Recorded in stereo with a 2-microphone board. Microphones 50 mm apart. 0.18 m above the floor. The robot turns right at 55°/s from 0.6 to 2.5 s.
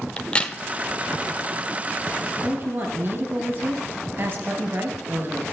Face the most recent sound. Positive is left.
turn(degrees=-50)  # may be behind; listen again after turning